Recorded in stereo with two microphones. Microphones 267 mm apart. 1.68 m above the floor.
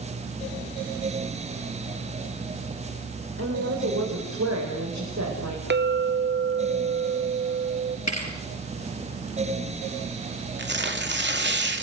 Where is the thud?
70° left (ahead or behind), 5 m.